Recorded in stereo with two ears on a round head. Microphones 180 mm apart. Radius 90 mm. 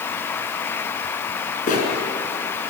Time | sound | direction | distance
1.7 | a bird | 40° left (ahead or behind) | 5 m